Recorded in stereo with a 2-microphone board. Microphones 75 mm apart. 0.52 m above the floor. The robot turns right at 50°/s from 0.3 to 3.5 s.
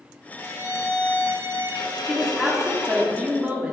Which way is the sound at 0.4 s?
30° left.